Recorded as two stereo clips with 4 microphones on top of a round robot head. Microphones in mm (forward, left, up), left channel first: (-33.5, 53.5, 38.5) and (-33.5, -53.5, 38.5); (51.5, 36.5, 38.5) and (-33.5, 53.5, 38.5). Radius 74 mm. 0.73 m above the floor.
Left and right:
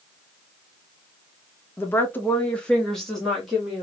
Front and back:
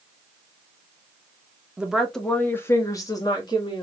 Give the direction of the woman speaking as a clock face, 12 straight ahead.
8 o'clock.